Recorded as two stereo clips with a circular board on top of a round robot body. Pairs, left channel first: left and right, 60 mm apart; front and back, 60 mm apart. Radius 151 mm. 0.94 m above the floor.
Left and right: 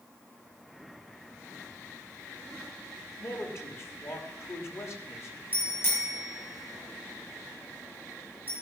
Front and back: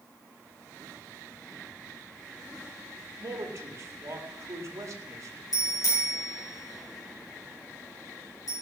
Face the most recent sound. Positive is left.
turn(degrees=30)